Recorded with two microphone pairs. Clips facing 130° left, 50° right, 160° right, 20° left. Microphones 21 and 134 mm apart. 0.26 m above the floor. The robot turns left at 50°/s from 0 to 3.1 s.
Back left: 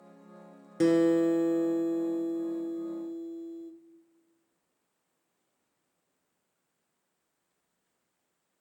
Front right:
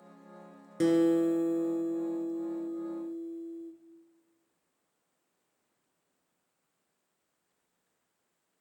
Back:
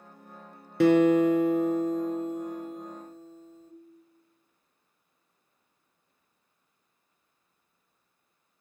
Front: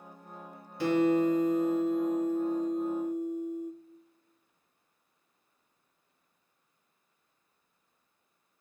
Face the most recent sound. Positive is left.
turn(degrees=95)